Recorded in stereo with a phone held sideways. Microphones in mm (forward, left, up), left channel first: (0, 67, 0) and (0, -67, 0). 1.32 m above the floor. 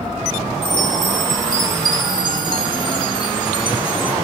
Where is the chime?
35° left (ahead or behind), 1.6 m.